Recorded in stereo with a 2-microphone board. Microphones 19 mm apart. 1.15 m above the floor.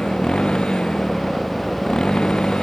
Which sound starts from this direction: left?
A motorcycle, at 0.0 s.